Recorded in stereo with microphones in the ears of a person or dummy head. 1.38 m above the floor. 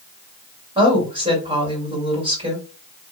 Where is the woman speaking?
30° right (ahead or behind), 2 m.